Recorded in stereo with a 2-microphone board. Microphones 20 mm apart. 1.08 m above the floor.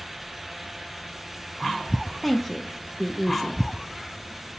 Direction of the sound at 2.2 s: 5° left (ahead or behind).